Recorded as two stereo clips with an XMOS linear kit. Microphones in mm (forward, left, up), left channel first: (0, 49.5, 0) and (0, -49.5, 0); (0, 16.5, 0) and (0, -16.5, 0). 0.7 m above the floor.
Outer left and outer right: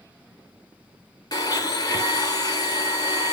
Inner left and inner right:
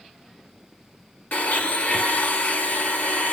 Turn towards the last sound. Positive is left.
turn(degrees=40)  # may be behind; listen again after turning